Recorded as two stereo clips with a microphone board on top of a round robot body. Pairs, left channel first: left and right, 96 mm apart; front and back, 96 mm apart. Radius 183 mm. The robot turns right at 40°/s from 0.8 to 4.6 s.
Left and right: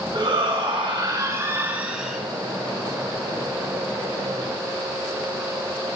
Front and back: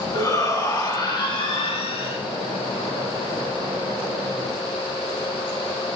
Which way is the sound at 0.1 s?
55° right.